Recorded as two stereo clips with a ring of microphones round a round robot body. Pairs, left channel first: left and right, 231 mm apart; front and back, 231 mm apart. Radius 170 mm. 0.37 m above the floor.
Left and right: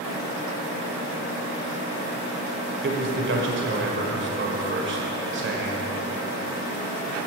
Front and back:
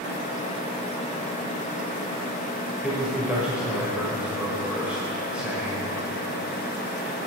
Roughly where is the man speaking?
Right.